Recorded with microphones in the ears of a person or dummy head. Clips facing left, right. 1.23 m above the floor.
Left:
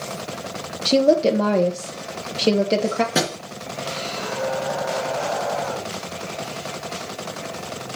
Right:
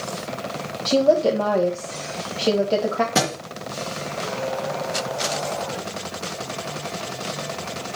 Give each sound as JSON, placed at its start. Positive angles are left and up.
{"t": 0.8, "sound": "a woman speaking", "side_deg": 30, "distance_m": 1.2}
{"t": 3.1, "sound": "a thud", "side_deg": 0, "distance_m": 3.0}